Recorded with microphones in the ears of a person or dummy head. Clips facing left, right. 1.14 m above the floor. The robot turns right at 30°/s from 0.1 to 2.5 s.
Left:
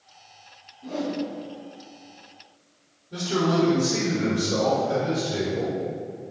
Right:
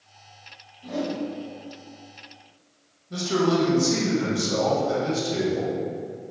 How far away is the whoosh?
About 1.4 m.